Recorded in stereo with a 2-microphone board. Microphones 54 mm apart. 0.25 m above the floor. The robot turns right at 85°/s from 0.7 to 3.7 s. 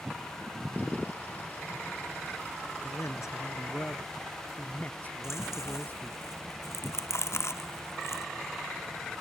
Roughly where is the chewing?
Left.